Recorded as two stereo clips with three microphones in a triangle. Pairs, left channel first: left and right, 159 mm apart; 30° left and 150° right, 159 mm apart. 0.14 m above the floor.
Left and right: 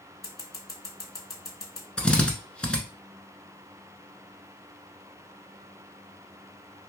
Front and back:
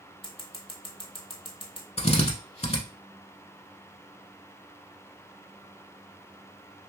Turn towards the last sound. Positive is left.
turn(degrees=10)